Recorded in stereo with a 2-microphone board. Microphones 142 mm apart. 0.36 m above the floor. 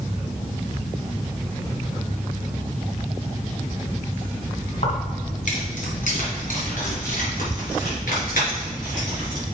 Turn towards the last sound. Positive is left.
turn(degrees=80)